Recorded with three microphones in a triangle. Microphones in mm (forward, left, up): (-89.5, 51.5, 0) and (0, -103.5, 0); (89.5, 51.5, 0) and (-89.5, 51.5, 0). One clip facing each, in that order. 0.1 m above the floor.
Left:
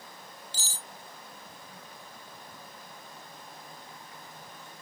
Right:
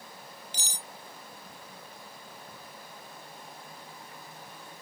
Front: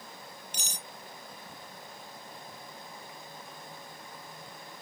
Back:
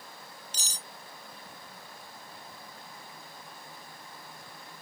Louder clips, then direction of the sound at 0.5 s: Right 1 dB, front 2 dB; 10° left.